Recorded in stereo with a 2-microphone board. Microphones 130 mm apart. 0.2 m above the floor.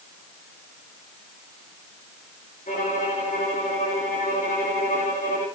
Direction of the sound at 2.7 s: 75° left (ahead or behind).